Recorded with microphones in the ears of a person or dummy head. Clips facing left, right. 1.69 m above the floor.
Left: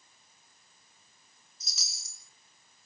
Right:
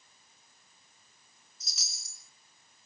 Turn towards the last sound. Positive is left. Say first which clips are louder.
# left 1 dB
turn(degrees=75)  # may be behind; listen again after turning